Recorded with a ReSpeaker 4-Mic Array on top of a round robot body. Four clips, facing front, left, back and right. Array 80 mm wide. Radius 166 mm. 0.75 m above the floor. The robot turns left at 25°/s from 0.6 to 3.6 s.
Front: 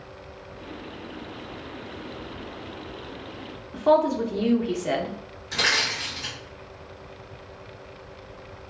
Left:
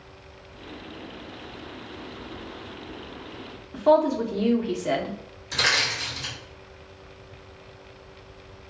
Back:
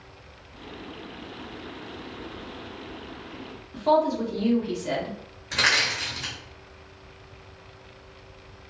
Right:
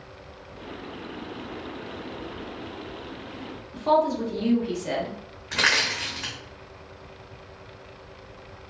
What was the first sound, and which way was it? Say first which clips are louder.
A woman speaking: left 2 dB, front 2 dB; 25° left.